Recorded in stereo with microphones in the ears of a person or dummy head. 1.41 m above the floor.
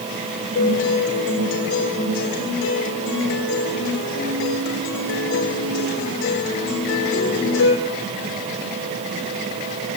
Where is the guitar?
70° left (ahead or behind), 6.5 m.